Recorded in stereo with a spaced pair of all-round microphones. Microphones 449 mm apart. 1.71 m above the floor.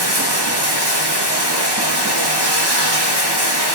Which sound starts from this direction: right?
Running water, at 0.0 s.